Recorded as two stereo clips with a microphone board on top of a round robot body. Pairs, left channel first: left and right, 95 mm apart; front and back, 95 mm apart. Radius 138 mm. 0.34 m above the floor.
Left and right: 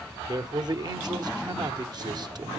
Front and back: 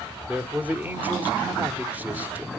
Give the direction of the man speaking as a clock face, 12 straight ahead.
4 o'clock.